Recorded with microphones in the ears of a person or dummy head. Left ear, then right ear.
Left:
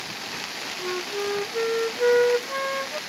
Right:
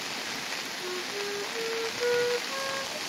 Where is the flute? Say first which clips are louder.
Left 5 dB; 75° left (ahead or behind).